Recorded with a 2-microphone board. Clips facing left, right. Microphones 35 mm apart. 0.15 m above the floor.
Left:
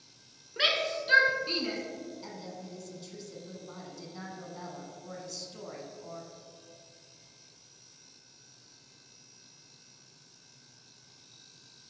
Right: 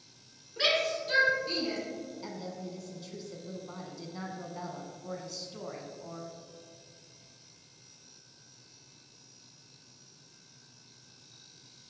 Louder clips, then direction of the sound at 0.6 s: Even; 35° left (ahead or behind).